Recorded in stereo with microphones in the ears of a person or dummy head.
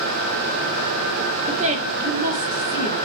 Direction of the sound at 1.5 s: 35° right (ahead or behind).